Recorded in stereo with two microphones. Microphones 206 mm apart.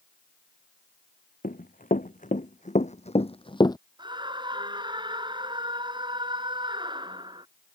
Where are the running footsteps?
45° left (ahead or behind); by 3.8 s 20° left (ahead or behind).